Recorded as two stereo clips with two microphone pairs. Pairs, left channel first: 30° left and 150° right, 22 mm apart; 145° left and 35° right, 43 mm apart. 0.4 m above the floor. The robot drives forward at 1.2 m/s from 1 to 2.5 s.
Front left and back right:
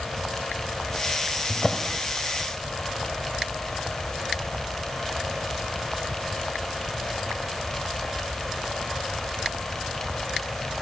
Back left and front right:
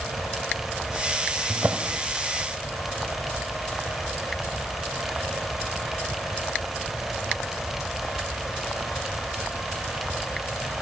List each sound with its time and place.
1.5 s a drawer: 40° right, 1.3 m; by 2.0 s 65° right, 0.9 m